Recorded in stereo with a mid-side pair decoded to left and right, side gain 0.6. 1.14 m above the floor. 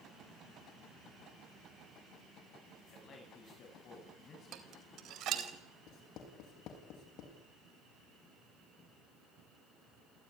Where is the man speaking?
45° left, 8 m.